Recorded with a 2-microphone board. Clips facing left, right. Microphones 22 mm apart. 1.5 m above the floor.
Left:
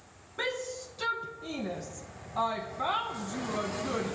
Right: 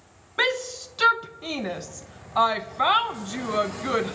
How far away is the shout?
About 0.9 m.